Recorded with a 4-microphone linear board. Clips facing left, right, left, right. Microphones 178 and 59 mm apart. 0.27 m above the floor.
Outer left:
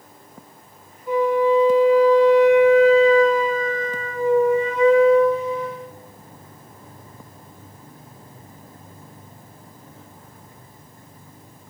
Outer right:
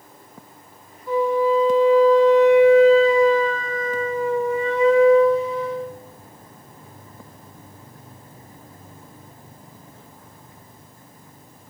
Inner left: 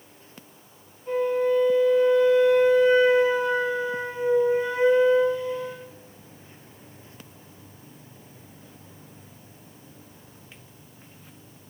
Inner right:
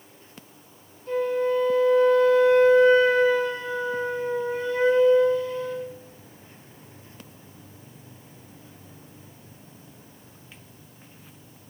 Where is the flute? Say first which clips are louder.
Outer left 1 dB, inner left 1 dB; 20° left (ahead or behind), 1.1 m.